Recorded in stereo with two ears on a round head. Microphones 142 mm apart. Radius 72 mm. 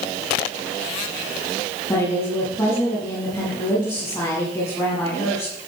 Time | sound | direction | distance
1.9 | a woman speaking | 10° left (ahead or behind) | 7 m